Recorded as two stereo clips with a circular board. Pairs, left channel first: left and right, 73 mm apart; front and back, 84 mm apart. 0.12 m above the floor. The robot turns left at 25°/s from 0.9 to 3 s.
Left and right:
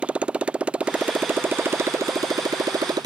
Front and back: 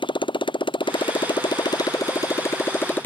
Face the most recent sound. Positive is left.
turn(degrees=-70)